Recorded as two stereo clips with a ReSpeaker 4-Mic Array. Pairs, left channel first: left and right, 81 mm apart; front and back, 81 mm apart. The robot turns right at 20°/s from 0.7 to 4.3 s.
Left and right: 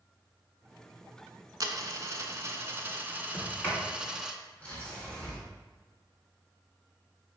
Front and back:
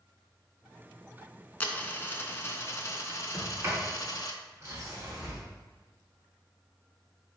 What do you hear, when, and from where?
1.6 s a dropped coin: 65° right, 0.5 m; by 4.3 s 10° right, 0.5 m
3.3 s a sliding door: 135° left, 1.6 m; by 5.4 s 155° left, 1.6 m